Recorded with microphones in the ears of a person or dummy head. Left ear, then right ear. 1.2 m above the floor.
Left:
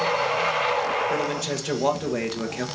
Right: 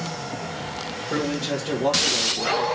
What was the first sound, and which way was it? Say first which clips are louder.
A man speaking: even; 60° left (ahead or behind).